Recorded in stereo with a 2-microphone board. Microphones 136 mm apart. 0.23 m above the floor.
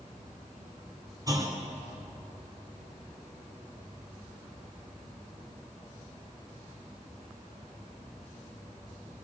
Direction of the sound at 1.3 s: 30° right (ahead or behind).